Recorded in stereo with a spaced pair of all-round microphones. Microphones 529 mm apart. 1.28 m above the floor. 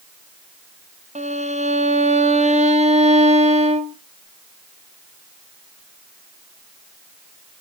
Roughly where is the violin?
Centre.